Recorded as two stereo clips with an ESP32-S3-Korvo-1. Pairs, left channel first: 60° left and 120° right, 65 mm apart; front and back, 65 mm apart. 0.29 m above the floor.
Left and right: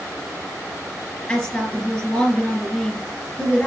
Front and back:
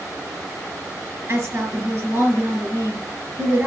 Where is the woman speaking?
135° left, 3.5 m.